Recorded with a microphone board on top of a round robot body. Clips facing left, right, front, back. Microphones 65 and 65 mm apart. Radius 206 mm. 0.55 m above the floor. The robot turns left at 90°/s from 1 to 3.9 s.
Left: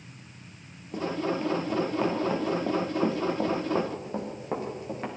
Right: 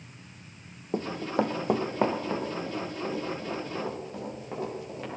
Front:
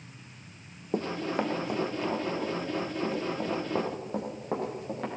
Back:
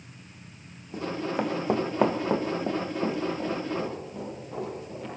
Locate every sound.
0.9 s running footsteps: 40° right, 0.9 m; by 5.1 s 30° left, 6.5 m